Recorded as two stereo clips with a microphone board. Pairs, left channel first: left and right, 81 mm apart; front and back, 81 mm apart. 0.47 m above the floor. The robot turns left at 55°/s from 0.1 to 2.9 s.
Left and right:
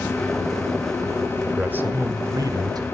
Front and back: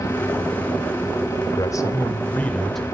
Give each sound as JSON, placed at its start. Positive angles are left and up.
{"t": 1.6, "sound": "a man speaking", "azimuth_deg": -20, "distance_m": 1.9}